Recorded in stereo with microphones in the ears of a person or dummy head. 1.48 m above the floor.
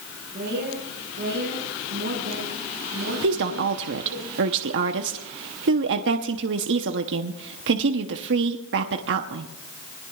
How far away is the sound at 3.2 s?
About 0.8 m.